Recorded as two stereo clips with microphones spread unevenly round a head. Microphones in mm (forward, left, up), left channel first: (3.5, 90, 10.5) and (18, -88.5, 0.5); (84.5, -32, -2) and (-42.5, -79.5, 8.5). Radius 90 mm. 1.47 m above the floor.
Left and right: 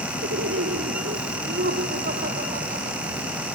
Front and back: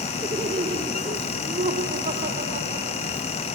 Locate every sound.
0.2 s laughter: 115° right; by 3.2 s 145° right